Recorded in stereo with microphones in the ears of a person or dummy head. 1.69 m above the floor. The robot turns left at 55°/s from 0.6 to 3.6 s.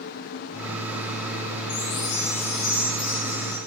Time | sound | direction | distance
1.7 | a chime | 110° left | 2.5 m